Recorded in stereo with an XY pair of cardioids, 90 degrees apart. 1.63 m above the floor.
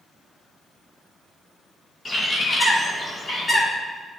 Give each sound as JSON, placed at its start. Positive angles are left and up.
{"t": 2.0, "sound": "a bird", "azimuth_deg": 30, "distance_m": 1.8}